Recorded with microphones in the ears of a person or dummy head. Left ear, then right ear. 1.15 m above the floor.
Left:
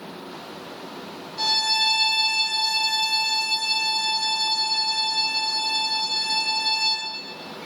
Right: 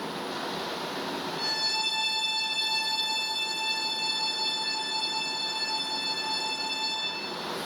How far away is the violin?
About 2.5 m.